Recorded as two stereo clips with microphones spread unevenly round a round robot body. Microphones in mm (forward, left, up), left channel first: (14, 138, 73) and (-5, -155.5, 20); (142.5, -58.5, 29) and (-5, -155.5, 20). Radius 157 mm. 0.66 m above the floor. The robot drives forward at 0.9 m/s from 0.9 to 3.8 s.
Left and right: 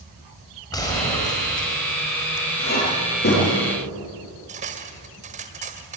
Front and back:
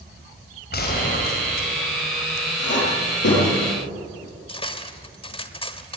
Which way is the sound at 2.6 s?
30° left.